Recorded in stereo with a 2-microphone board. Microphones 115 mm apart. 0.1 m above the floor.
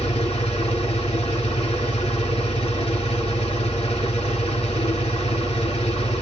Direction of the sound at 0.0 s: 50° left (ahead or behind).